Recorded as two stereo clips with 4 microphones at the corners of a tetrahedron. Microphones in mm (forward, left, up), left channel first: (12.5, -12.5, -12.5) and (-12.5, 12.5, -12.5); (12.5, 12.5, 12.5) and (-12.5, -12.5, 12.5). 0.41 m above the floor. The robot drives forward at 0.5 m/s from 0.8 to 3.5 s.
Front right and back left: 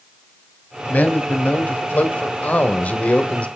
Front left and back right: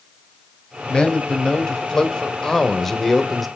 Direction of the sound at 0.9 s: 15° right.